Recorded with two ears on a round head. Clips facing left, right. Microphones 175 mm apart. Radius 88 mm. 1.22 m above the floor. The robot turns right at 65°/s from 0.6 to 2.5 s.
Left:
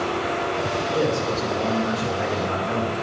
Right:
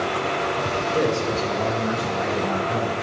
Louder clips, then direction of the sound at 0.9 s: Right 1 dB; 20° right.